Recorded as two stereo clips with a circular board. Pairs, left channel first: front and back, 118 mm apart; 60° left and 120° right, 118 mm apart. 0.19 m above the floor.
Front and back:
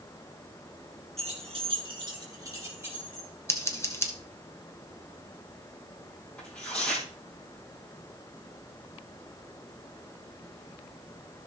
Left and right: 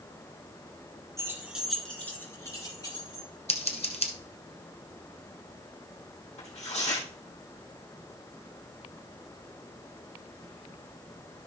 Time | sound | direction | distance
1.2 | keys jangling | straight behind | 1.8 m
3.5 | scissors | 65° left | 1.3 m
6.4 | tearing paper | 80° left | 3.5 m